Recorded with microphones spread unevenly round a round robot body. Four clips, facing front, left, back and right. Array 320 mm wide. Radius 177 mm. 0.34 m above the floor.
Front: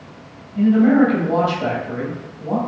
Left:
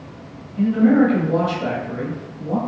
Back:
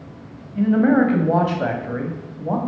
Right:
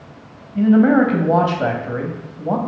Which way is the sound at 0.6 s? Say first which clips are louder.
Right 2 dB, front 2 dB; 95° right.